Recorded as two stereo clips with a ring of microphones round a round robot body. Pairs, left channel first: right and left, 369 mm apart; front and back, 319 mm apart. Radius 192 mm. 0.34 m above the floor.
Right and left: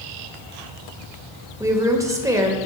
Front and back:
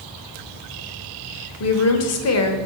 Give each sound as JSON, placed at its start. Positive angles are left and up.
{"t": 1.6, "sound": "a woman speaking", "azimuth_deg": 10, "distance_m": 1.2}